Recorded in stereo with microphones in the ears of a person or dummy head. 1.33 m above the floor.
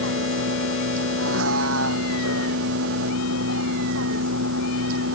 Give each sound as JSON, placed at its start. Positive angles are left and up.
{"t": 0.0, "sound": "a vehicle", "side_deg": -85}